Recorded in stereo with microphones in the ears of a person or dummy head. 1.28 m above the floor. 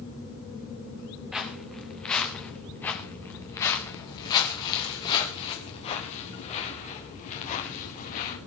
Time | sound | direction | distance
1.3 | footsteps | centre (ahead or behind) | 4.5 m